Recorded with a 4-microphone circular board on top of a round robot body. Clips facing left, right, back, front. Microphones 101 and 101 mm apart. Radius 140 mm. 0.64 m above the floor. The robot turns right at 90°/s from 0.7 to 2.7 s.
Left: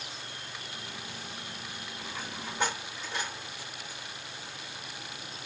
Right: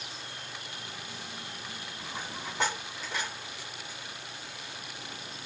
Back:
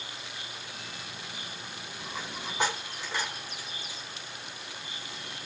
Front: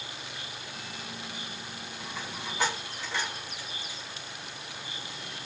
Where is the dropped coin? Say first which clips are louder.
Right 1 dB, back 1 dB; 165° right, 1.9 m; by 5.5 s 100° right, 1.9 m.